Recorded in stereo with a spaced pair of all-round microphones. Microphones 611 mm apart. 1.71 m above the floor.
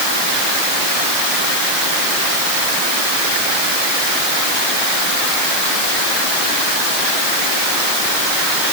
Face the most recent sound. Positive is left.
No sound to turn to.